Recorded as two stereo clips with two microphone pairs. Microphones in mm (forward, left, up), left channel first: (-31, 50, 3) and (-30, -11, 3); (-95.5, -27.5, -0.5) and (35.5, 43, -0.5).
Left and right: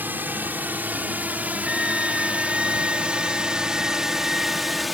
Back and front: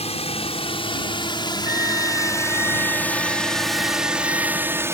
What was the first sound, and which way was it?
A drone, 130° right.